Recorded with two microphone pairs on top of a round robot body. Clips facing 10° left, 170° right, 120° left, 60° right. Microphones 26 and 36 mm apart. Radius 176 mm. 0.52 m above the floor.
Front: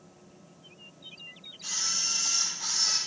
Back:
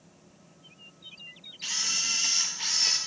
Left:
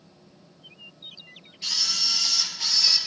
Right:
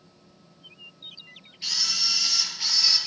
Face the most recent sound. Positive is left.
turn(degrees=-145)